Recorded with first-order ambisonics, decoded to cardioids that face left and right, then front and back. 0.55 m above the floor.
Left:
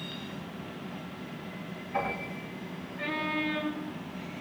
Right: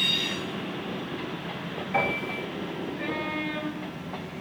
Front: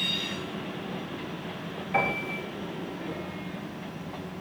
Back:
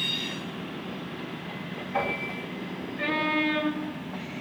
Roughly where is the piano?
Ahead right.